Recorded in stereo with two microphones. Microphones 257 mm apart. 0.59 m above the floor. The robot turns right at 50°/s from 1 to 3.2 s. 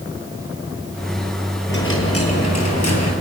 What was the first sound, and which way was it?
A dropped coin, 40° left.